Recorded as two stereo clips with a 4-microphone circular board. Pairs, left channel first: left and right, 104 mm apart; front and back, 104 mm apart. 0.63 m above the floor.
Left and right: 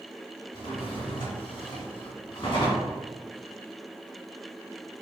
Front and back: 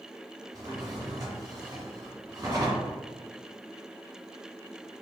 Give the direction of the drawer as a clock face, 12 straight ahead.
8 o'clock.